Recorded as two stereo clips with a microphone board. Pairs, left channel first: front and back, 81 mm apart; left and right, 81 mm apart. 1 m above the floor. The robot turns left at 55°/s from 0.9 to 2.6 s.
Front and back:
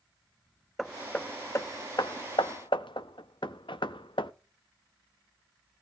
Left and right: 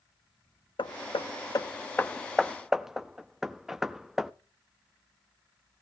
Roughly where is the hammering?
Left.